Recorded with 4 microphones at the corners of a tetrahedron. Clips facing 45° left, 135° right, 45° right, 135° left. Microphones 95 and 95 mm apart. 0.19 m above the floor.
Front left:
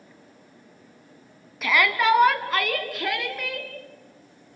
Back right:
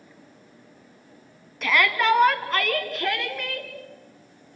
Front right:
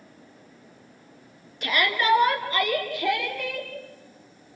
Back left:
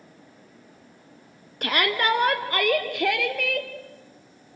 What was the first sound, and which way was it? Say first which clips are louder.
A shout: even, even; 130° left.